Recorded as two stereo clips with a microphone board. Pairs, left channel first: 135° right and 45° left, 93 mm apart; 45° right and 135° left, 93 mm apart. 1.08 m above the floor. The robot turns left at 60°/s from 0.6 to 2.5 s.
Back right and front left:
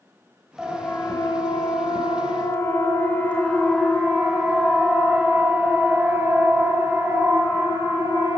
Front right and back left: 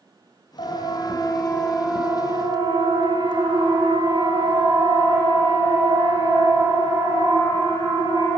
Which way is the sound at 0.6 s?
40° right.